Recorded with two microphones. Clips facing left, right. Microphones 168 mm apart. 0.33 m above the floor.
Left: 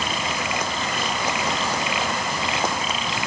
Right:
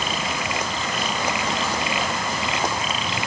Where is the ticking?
No ticking in this recording.